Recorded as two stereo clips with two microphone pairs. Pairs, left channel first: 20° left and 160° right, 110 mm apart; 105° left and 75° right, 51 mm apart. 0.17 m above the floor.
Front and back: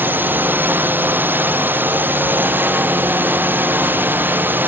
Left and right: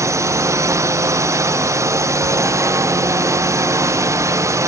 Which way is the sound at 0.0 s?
85° right.